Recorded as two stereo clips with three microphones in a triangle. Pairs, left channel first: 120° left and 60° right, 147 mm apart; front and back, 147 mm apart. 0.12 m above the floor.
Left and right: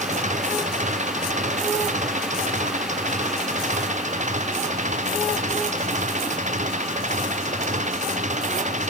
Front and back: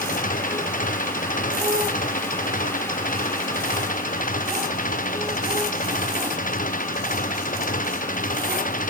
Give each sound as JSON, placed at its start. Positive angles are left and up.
{"t": 0.0, "sound": "an engine running", "azimuth_deg": -25}